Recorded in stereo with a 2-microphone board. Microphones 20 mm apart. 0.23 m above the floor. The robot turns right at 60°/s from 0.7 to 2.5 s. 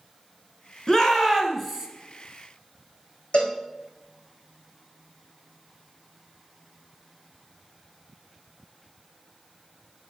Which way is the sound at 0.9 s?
135° left.